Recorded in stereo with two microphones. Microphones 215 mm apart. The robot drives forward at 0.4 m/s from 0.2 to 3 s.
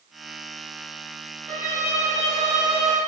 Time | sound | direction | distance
1.5 | a violin | 30° right (ahead or behind) | 1.0 m